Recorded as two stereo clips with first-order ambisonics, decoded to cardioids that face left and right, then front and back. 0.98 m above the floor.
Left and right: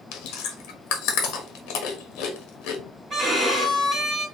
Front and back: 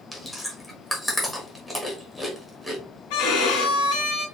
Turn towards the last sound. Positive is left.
turn(degrees=-15)